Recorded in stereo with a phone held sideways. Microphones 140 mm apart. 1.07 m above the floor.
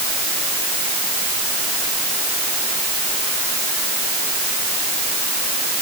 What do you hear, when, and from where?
Only background noise.